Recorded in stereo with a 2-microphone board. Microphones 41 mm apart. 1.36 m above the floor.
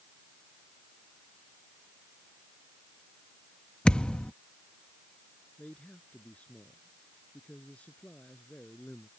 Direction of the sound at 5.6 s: 40° left (ahead or behind).